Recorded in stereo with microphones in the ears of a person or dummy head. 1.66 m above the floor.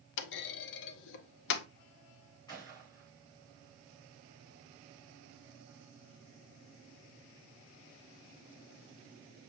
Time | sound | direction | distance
0.2 | a clunk | 60° left (ahead or behind) | 0.6 m
2.5 | a gunshot | 20° left (ahead or behind) | 5.5 m